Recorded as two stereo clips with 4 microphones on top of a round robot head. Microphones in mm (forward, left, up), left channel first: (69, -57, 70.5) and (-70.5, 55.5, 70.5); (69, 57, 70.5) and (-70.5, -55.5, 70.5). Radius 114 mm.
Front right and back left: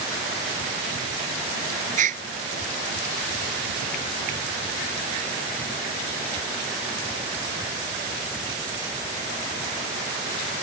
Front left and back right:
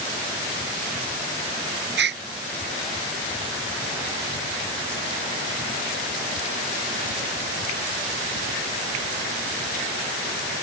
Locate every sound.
2.0 s a gasp: 170° right